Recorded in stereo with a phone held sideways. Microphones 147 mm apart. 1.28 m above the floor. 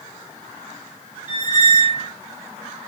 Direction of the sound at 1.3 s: 45° right (ahead or behind).